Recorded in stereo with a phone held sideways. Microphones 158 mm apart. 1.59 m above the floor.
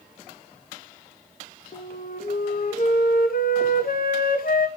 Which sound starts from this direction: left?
A flute, at 1.7 s.